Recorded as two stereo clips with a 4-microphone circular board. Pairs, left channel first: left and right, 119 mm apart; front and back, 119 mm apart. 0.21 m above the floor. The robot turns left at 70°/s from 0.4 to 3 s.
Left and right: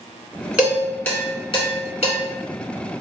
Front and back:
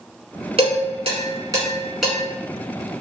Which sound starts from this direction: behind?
Dishes clattering, at 0.6 s.